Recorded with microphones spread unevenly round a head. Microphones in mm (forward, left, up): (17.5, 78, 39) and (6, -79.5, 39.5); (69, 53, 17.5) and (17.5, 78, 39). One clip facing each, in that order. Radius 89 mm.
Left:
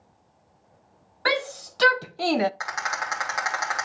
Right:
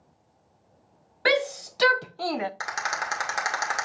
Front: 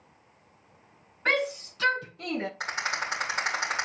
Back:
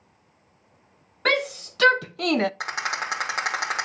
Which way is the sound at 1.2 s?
160° right.